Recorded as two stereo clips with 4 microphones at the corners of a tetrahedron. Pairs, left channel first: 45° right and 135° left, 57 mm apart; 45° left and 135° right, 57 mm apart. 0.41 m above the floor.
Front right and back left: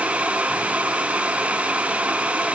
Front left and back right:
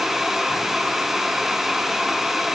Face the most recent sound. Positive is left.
No sound to turn to.